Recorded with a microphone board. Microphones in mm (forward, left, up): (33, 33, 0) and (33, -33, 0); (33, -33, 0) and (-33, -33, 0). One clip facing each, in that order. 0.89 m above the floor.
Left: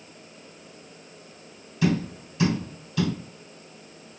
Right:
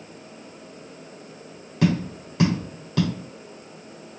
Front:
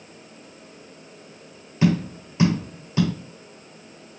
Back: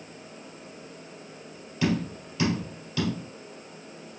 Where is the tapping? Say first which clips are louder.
Right 2 dB, front 5 dB; 60° right, 2.5 m.